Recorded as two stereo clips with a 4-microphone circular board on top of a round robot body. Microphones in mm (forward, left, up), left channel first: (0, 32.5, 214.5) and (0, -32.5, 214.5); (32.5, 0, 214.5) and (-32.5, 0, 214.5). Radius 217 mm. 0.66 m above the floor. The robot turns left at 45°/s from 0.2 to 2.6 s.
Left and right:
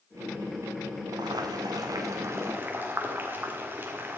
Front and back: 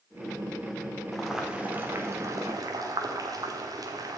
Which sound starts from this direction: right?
Boiling, at 1.1 s.